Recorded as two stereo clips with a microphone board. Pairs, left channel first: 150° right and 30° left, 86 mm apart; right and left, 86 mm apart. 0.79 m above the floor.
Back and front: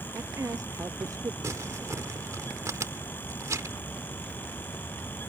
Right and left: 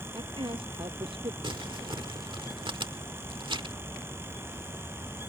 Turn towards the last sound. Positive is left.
turn(degrees=80)